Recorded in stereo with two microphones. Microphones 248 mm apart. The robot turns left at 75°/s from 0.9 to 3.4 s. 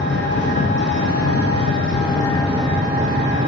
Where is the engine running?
130° left, 1.0 m; by 3.5 s 60° right, 1.0 m.